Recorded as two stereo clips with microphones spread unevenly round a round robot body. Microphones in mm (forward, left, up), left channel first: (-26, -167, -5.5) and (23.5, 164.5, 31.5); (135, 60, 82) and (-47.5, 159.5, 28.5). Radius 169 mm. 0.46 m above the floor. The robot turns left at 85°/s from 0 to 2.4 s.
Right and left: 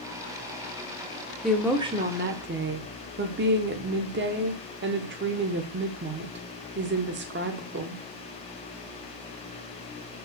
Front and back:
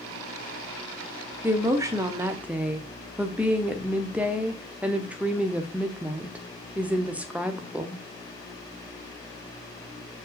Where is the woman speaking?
170° right, 0.9 m; by 8.0 s 105° left, 0.9 m.